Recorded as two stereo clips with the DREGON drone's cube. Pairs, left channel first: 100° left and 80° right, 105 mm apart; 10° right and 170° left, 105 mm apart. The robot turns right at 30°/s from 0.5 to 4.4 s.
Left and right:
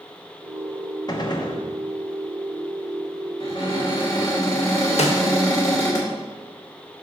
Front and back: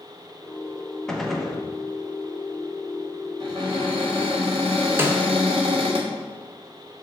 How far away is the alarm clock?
No alarm clock in this recording.